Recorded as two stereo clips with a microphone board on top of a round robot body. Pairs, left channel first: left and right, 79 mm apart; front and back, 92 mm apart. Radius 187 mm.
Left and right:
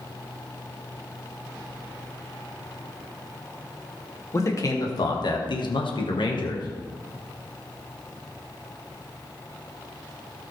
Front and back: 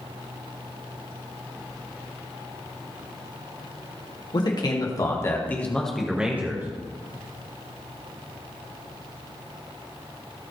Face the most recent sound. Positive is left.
turn(degrees=115)